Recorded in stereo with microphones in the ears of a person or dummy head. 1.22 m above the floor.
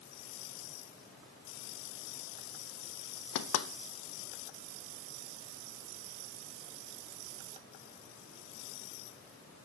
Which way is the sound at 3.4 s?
65° left (ahead or behind).